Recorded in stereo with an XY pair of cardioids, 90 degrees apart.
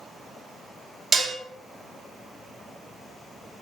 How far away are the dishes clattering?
About 0.8 m.